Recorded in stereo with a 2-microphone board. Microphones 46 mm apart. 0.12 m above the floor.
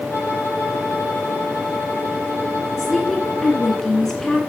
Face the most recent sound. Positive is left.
turn(degrees=10)  # may be behind; listen again after turning